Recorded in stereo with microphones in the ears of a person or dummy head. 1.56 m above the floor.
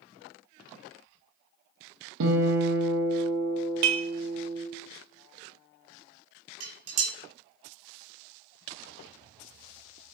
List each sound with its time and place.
2.2 s a guitar: 80° right, 1.6 m
3.8 s dishes clattering: 50° right (ahead or behind), 1.4 m
6.6 s dishes clattering: 65° right (ahead or behind), 3 m